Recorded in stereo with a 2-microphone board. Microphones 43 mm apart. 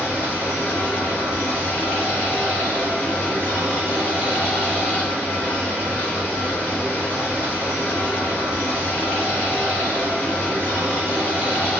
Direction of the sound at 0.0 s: 60° left (ahead or behind).